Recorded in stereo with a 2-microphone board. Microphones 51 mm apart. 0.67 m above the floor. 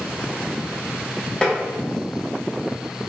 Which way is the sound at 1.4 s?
20° left (ahead or behind).